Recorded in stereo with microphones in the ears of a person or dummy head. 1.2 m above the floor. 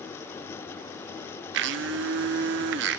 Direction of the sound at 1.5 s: 70° right (ahead or behind).